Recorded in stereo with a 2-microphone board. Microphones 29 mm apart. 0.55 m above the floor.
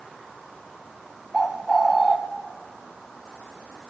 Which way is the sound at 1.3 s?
15° right (ahead or behind).